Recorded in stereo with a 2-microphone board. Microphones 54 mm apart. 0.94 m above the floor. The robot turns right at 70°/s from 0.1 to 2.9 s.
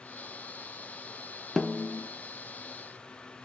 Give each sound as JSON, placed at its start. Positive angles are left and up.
{"t": 1.6, "sound": "a snare drum", "azimuth_deg": 5, "distance_m": 0.6}